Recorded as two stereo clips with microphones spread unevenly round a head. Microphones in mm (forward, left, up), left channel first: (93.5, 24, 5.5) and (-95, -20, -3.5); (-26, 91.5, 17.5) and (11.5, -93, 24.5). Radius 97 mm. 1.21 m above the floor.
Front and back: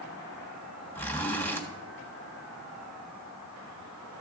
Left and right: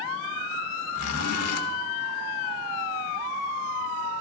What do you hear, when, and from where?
0.9 s a zipper: 90° left, 1.2 m